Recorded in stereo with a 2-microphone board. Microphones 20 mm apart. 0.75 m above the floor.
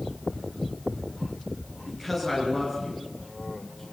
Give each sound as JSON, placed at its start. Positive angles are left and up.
{"t": 1.9, "sound": "a woman speaking", "side_deg": -5, "distance_m": 9.0}